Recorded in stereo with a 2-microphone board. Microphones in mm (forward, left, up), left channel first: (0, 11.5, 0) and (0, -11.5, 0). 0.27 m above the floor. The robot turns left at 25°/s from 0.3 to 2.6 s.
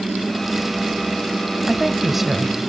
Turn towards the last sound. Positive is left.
turn(degrees=-5)  # may be behind; listen again after turning